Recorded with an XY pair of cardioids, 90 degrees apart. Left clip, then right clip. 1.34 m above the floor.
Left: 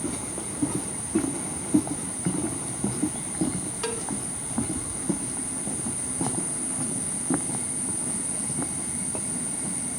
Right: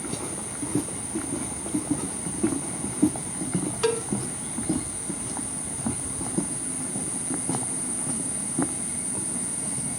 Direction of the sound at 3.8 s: 40° right.